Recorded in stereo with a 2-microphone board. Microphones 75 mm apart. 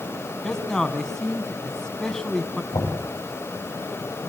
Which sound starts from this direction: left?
Knocking, at 2.7 s.